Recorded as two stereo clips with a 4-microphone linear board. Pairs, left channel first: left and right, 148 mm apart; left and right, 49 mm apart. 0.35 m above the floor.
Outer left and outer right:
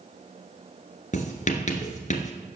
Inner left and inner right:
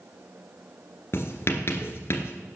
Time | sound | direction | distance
1.1 | writing | 50° left (ahead or behind) | 1.8 m